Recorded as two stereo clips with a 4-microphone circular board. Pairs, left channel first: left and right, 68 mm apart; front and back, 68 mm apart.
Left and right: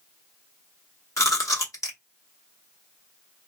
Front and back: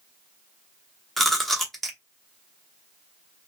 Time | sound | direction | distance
1.2 | chewing | 85° left | 0.8 m